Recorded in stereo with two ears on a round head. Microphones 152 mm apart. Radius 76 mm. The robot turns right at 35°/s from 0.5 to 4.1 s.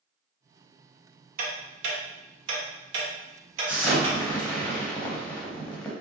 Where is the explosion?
10° right (ahead or behind), 0.7 m; by 5.9 s 5° left (ahead or behind), 0.7 m.